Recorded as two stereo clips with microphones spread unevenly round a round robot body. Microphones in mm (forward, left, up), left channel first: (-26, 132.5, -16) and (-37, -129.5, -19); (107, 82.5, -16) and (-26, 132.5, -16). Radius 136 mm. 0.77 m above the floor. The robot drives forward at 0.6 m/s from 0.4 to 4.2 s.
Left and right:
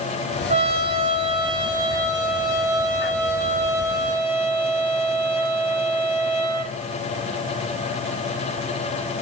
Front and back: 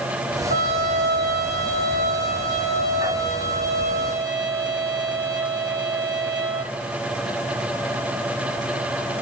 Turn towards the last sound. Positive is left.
turn(degrees=-170)